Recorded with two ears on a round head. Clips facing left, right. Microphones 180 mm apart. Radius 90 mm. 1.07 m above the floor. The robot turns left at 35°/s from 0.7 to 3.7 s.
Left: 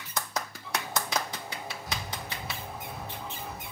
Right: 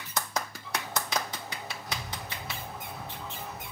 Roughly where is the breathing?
Left.